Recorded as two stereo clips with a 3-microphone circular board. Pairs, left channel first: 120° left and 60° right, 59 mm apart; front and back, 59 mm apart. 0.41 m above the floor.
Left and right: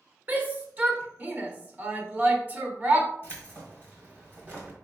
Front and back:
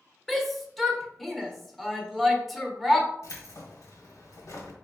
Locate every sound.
0.3 s a shout: 90° right, 0.9 m
3.2 s keys jangling: 10° right, 1.7 m